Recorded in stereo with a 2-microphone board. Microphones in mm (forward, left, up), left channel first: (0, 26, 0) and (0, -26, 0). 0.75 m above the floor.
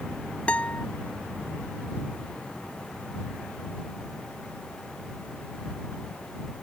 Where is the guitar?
25° left (ahead or behind).